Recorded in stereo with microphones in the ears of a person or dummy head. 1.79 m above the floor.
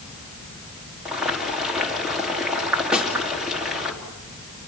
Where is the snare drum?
Centre (ahead or behind), 3.5 m.